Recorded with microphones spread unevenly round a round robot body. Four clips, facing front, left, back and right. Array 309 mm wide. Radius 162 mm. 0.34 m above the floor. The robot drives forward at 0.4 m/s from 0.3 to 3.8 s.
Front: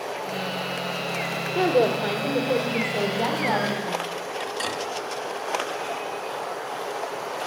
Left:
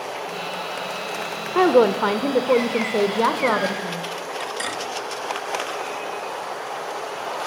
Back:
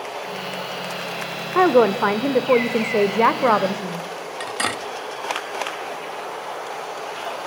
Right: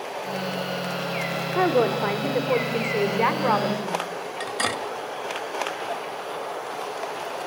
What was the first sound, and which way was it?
A woman speaking, 135° left.